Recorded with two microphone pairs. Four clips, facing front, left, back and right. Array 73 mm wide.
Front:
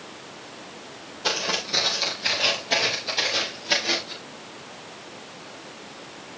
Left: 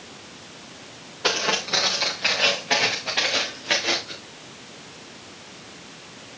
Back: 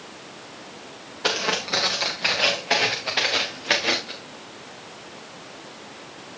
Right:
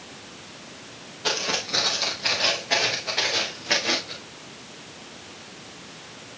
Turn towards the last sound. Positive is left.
turn(degrees=170)